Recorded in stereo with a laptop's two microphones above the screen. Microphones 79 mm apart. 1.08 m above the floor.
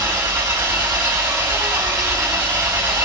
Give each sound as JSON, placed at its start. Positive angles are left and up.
{"t": 0.0, "sound": "an engine running", "side_deg": -40, "distance_m": 2.0}